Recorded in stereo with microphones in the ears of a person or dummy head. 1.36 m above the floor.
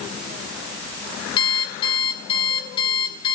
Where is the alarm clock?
30° left (ahead or behind), 3 m.